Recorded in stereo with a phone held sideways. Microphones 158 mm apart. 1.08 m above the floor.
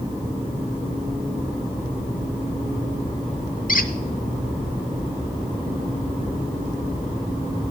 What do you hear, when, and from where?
3.7 s a squeak: 60° left (ahead or behind), 0.7 m